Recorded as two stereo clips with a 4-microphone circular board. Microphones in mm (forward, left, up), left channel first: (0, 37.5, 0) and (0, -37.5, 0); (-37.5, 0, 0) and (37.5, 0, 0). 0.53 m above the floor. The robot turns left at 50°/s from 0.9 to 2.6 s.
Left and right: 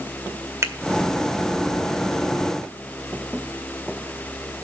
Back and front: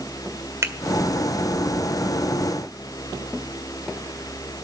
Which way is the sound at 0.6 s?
45° right.